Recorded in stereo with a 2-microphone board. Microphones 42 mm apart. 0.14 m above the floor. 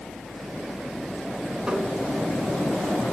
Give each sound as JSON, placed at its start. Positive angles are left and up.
{"t": 1.7, "sound": "tapping", "side_deg": -25, "distance_m": 1.3}